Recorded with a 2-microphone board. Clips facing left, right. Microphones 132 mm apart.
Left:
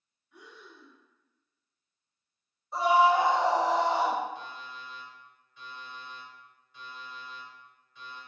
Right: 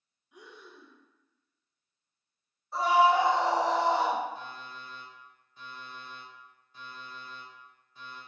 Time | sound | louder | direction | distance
0.3 | breathing | right 1 dB | 15° right (ahead or behind) | 0.8 m
2.7 | a scream | left 1 dB | 20° left (ahead or behind) | 1.1 m
4.3 | an alarm clock | even | 40° right (ahead or behind) | 1.4 m